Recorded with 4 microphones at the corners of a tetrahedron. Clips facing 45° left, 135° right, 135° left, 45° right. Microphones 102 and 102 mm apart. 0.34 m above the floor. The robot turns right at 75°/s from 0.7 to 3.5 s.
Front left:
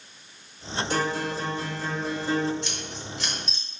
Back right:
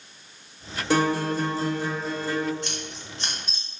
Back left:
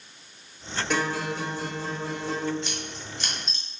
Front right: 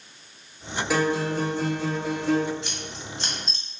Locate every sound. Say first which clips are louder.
0.9 s a guitar: back right 6 dB, front right 4 dB; 130° right, 0.8 m; by 2.5 s 10° right, 0.8 m
2.6 s scissors: even, even; 130° right, 1.3 m; by 3.6 s 65° right, 1.3 m